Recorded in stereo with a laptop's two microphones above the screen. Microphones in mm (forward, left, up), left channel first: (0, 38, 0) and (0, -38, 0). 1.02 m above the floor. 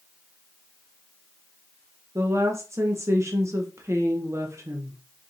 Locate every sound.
2.1 s a woman speaking: 40° right (ahead or behind), 0.7 m